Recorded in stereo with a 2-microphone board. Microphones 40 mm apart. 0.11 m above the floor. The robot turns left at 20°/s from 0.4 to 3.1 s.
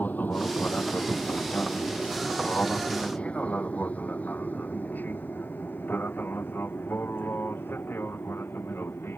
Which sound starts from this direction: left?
An aircraft, at 0.0 s.